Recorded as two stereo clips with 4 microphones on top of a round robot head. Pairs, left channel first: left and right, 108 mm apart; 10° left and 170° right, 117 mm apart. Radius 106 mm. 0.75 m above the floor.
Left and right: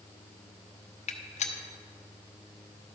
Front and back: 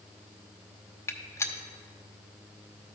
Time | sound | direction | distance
1.1 | a gunshot | 75° left | 0.9 m